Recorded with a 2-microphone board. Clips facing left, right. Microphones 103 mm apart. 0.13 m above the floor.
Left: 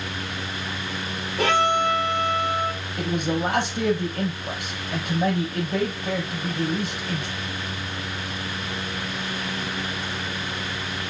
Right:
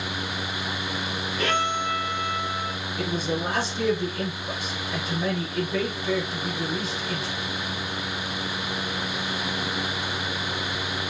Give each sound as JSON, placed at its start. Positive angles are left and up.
{"t": 1.4, "sound": "a violin", "side_deg": 70, "distance_m": 3.0}
{"t": 3.0, "sound": "a man speaking", "side_deg": 65, "distance_m": 3.5}